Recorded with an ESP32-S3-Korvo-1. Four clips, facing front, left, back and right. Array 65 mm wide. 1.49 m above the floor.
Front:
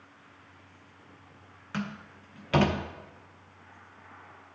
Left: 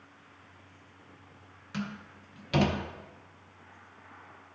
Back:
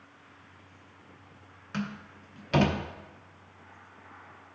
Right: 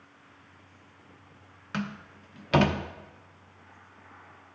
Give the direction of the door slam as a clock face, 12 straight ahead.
3 o'clock.